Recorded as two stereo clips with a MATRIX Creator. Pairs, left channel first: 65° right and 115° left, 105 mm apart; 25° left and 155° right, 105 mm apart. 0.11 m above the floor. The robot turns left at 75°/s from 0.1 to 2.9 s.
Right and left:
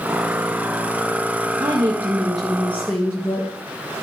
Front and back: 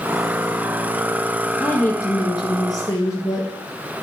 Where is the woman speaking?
85° left, 1.6 m; by 3.5 s 15° right, 1.6 m.